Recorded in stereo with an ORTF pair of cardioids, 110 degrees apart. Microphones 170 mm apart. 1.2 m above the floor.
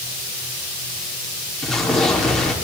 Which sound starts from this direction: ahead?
An explosion, at 1.6 s.